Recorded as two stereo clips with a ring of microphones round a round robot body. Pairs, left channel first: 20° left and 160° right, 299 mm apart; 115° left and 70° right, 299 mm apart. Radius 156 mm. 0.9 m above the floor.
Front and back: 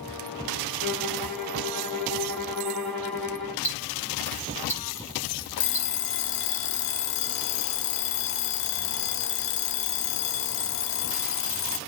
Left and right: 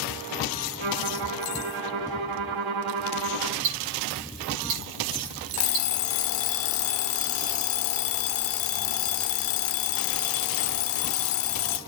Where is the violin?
70° right, 5 m.